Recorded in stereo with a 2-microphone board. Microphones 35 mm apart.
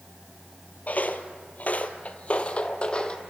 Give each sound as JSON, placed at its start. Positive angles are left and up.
{"t": 0.9, "sound": "footsteps", "side_deg": 45, "distance_m": 1.3}